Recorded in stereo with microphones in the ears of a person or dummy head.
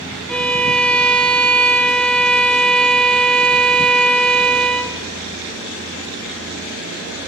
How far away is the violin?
About 0.7 m.